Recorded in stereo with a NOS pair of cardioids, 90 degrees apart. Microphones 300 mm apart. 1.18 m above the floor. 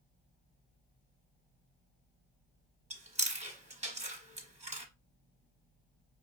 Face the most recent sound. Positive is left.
turn(degrees=-20)